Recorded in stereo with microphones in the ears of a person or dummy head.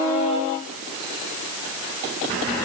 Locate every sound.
Only background noise.